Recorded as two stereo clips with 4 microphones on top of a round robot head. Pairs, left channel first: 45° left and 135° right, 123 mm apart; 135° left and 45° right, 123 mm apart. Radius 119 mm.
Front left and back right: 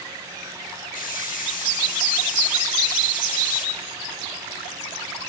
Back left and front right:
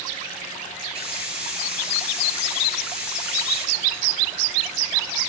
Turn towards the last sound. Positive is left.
turn(degrees=40)